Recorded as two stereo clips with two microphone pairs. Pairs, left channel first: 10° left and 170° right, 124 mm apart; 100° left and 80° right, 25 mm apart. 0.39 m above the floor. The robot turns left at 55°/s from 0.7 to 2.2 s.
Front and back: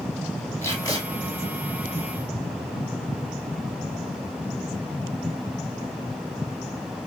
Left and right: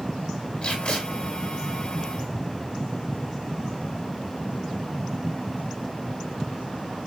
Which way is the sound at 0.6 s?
70° left.